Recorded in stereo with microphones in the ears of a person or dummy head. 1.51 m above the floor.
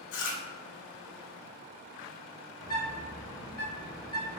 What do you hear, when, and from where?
0.1 s chewing: 60° left (ahead or behind), 0.5 m
2.6 s a bird: 25° left (ahead or behind), 1.3 m